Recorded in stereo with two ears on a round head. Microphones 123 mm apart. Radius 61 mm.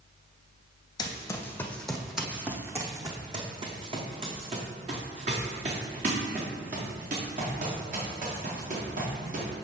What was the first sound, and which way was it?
Running footsteps, 30° left (ahead or behind).